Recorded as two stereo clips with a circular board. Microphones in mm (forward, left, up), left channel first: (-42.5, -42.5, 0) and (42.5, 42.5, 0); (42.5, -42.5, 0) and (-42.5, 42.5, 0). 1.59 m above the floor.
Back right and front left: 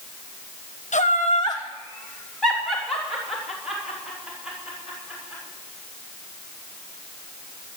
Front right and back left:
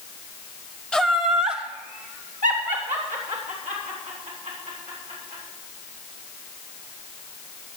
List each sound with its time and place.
0.9 s laughter: 135° right, 0.9 m; by 5.4 s 125° left, 7 m